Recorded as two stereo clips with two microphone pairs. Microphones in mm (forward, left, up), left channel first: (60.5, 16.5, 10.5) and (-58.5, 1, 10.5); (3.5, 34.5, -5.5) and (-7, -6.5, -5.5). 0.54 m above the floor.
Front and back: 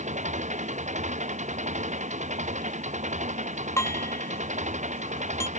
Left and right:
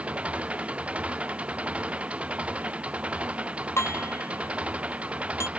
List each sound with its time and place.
0.0 s an engine running: 165° right
3.8 s dishes clattering: 75° left